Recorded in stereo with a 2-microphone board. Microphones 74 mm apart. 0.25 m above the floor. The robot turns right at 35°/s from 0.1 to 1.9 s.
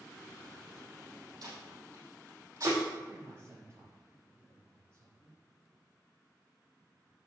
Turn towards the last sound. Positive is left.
turn(degrees=-40)  # may be behind; listen again after turning